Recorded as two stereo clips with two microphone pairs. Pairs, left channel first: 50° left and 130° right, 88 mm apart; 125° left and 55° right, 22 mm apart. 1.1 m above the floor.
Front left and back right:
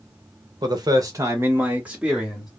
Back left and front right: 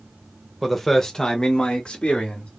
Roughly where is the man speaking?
Behind right.